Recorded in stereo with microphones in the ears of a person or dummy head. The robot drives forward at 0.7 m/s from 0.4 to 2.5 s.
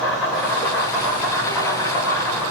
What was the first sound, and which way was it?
An insect, 10° left (ahead or behind).